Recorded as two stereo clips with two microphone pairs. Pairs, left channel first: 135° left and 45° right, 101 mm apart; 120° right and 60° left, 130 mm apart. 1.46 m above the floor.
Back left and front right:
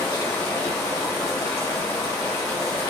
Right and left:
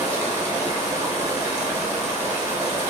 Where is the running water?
110° left, 1.1 m.